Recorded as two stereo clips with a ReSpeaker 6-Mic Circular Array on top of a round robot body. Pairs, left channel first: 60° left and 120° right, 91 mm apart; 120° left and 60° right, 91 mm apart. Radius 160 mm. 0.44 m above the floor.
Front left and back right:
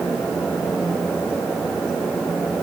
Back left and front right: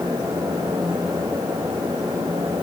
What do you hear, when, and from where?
Only background noise.